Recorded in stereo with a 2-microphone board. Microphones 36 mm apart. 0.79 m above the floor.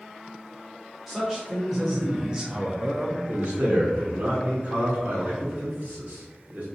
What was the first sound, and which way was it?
A man speaking, 5° right (ahead or behind).